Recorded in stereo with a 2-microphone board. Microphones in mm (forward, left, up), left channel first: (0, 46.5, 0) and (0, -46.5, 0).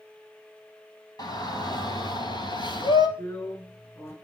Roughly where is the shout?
Left.